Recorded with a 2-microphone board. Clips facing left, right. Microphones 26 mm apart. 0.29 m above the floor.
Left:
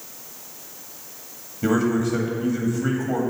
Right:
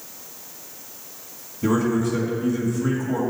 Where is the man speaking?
30° left (ahead or behind), 1.8 m.